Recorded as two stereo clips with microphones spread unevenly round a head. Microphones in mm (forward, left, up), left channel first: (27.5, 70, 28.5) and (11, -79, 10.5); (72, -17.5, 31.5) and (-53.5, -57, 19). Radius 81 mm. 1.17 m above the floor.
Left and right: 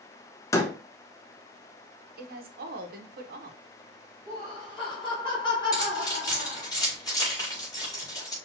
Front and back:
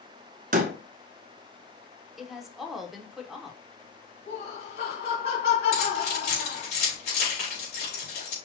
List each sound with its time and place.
0.5 s a door slam: 160° left, 0.6 m
2.2 s a woman speaking: 75° right, 1.0 m
4.3 s laughter: 20° left, 2.5 m
5.7 s keys jangling: 15° left, 3.5 m